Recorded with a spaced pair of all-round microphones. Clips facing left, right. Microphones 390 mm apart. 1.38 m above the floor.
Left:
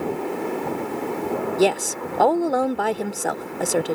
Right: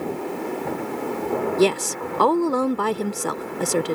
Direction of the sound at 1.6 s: 10° right (ahead or behind).